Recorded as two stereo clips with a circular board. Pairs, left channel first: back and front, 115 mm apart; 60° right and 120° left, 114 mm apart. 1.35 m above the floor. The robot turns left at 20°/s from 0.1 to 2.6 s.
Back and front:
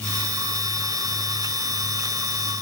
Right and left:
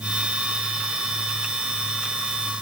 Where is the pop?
No pop in this recording.